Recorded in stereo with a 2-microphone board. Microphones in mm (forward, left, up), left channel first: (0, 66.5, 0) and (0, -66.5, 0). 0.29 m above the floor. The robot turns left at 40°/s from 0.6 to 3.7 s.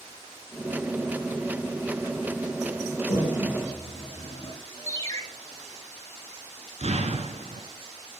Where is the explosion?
60° right (ahead or behind), 1.4 m.